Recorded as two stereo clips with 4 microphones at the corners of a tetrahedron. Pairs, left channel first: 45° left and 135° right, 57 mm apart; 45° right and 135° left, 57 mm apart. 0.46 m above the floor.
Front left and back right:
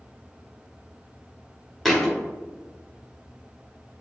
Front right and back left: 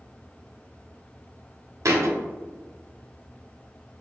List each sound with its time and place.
1.9 s a thud: 135° left, 0.7 m